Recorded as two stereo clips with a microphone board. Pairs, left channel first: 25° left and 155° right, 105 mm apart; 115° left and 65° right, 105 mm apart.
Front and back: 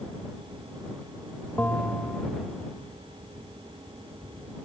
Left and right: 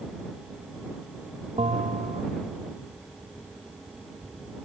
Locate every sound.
1.6 s a bell: 50° right